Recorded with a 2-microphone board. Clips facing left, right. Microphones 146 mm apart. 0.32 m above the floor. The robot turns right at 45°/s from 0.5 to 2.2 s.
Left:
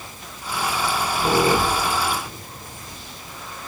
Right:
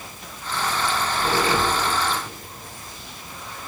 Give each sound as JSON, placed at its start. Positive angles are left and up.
{"t": 0.8, "sound": "a squeak", "side_deg": 0, "distance_m": 1.7}